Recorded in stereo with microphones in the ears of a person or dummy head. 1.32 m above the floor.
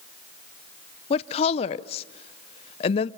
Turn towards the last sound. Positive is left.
turn(degrees=35)  # may be behind; listen again after turning